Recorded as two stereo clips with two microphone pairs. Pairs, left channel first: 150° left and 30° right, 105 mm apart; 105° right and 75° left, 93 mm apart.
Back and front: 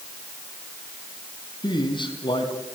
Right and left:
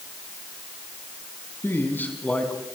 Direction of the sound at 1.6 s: 165° right.